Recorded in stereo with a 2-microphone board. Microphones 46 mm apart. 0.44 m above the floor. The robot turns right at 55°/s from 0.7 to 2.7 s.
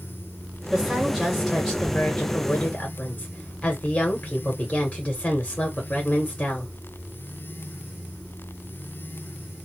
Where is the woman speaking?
55° right, 1.1 m; by 6.7 s 55° left, 1.1 m.